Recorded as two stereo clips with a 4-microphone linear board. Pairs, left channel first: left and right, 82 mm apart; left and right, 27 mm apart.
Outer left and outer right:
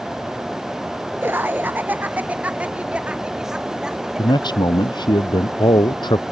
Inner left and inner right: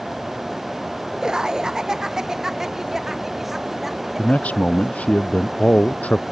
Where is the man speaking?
65° left (ahead or behind).